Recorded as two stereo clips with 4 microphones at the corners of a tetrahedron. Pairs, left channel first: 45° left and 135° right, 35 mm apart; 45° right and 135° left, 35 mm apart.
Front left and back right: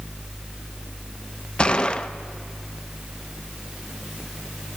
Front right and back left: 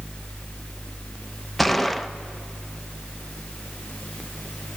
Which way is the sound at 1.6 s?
35° left.